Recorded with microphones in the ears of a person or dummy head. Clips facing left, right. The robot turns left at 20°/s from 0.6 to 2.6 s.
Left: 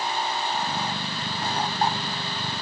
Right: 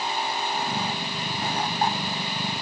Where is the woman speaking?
No woman speaking in this recording.